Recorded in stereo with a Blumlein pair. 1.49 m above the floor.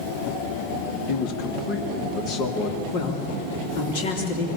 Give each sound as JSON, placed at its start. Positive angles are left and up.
{"t": 1.1, "sound": "a man speaking", "azimuth_deg": 45, "distance_m": 2.0}
{"t": 2.9, "sound": "a man speaking", "azimuth_deg": 50, "distance_m": 4.0}